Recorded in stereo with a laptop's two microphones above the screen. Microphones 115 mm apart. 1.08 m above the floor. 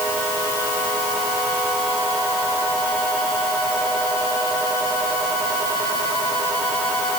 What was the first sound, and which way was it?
Only background noise.